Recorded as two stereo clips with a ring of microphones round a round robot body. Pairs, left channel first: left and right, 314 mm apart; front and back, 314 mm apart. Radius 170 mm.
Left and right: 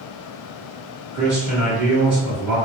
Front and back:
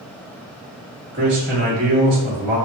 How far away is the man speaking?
About 1.3 m.